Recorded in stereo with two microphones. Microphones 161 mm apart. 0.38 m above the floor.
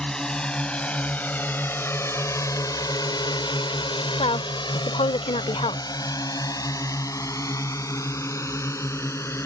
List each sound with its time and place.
0.0 s a drone: 5° left (ahead or behind); by 9.5 s 15° left (ahead or behind)
4.2 s a woman speaking: 40° left (ahead or behind)